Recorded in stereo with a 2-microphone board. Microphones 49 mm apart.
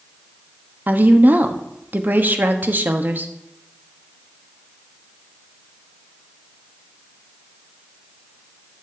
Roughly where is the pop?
No pop in this recording.